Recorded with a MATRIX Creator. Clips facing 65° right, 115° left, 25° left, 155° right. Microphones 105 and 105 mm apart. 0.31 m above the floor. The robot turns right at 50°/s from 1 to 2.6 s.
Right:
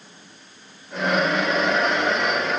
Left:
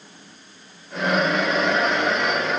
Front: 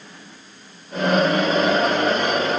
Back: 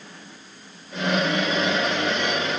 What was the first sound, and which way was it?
Only background noise.